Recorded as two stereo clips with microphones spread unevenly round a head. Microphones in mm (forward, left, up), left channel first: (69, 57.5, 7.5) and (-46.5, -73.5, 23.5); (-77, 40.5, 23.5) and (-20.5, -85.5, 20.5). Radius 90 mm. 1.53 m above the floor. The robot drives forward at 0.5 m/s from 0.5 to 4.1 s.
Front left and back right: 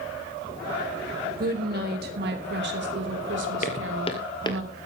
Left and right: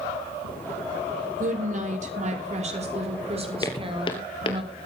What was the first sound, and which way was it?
A woman speaking, 95° right.